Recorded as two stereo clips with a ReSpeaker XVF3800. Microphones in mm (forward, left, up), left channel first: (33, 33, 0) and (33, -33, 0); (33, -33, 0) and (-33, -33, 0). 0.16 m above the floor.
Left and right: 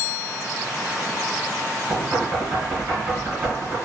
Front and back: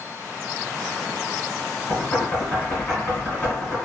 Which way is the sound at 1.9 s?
40° right.